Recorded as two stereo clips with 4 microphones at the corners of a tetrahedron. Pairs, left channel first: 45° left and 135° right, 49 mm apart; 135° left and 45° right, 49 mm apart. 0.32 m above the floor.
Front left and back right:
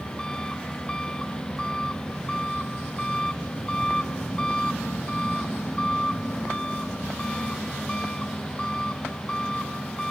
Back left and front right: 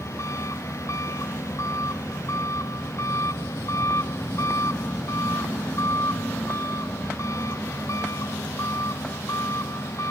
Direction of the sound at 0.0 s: 120° left.